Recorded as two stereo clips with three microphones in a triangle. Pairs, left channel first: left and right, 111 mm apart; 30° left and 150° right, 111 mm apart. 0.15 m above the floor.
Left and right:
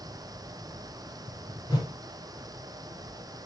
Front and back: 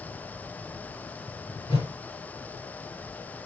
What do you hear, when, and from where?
1.7 s a whoosh: 45° left, 3 m